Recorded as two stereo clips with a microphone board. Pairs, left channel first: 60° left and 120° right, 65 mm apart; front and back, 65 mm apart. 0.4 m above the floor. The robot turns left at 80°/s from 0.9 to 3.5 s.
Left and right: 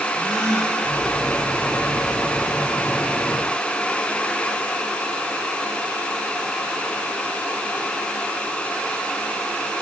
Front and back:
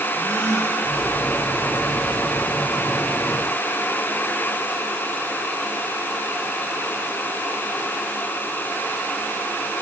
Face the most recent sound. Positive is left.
turn(degrees=100)